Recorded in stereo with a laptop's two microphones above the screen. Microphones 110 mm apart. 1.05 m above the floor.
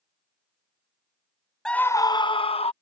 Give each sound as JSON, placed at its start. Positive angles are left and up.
{"t": 1.6, "sound": "a scream", "side_deg": 5}